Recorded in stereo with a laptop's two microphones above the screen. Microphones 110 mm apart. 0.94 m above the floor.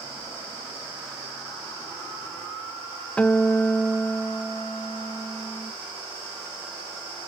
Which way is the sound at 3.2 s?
10° left (ahead or behind).